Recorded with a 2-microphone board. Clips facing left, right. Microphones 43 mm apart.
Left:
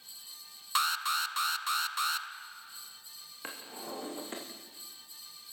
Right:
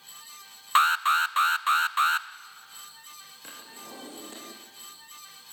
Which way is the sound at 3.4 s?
30° left (ahead or behind).